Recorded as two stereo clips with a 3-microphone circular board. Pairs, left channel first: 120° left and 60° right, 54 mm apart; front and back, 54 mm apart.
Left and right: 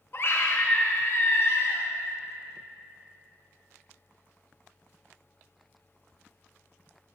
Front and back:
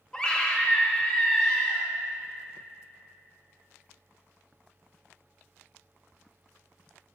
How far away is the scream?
About 0.6 m.